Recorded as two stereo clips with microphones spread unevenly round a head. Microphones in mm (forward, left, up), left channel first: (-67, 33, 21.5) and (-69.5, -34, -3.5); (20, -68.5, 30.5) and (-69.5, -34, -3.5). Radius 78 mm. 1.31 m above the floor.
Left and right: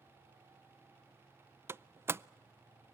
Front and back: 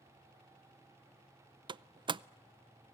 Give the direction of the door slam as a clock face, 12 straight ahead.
5 o'clock.